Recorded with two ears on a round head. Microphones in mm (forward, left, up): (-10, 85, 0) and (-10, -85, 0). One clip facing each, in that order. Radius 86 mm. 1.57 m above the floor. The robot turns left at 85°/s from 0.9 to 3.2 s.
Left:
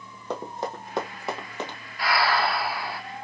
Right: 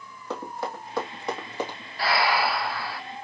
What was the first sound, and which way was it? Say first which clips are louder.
Running footsteps: left 1 dB; 15° left (ahead or behind).